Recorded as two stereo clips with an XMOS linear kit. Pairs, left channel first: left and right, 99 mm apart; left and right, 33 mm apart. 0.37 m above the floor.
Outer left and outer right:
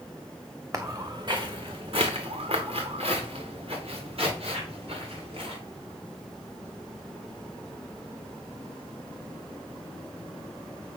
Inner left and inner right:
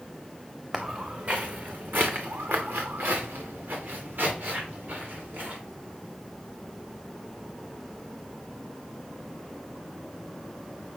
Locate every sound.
0.7 s footsteps: 35° right (ahead or behind), 1.8 m; by 5.6 s 65° right (ahead or behind), 4.5 m